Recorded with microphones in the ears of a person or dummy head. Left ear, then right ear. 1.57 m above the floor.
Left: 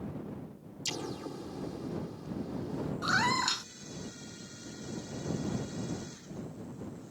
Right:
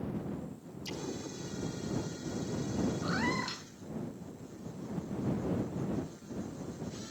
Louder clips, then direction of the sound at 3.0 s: Left 9 dB; 40° left (ahead or behind).